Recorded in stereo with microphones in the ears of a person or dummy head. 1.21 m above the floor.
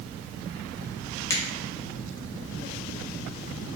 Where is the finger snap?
10° left (ahead or behind), 0.6 m.